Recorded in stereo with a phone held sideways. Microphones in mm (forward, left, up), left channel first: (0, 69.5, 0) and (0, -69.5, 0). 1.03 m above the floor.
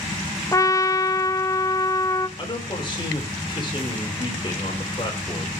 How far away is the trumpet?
About 0.8 m.